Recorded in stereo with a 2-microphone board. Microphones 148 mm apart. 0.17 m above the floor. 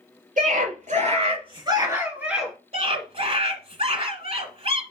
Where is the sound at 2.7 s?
45° right (ahead or behind), 2.0 m.